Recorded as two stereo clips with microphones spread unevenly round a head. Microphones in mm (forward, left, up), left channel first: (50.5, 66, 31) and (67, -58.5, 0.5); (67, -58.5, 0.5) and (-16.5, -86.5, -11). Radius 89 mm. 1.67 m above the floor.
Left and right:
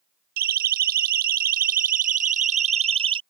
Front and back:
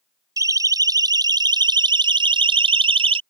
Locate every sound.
0.4 s a siren: 110° right; by 3.2 s 150° right